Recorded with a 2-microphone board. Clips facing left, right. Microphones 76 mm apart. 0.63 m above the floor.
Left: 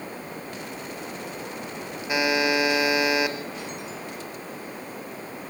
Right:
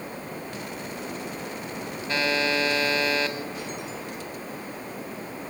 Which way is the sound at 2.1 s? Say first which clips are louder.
Left 3 dB; 15° left (ahead or behind).